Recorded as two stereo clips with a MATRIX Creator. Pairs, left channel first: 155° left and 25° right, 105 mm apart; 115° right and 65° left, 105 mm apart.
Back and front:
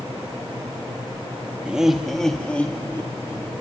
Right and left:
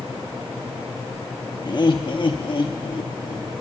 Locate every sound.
1.6 s laughter: 95° right, 1.0 m; by 3.5 s 140° right, 1.6 m